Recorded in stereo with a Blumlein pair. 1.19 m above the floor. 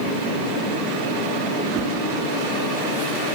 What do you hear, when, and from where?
1.6 s a whoosh: 30° right, 3.5 m